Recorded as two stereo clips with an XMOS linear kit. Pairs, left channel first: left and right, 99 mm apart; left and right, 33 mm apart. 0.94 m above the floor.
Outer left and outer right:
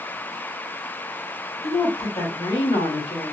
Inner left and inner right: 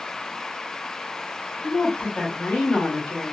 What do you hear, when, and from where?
1.6 s a woman speaking: 70° left (ahead or behind), 1.6 m